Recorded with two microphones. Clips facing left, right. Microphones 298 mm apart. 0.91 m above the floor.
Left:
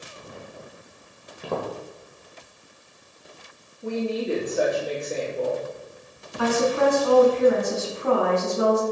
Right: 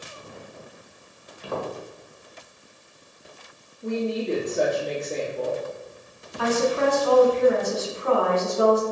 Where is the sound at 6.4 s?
55° left (ahead or behind), 1.4 m.